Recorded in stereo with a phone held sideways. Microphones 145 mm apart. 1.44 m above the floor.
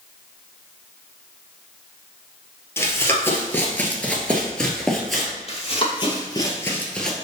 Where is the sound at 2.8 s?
15° left (ahead or behind), 1.8 m; by 5.3 s centre (ahead or behind), 1.7 m.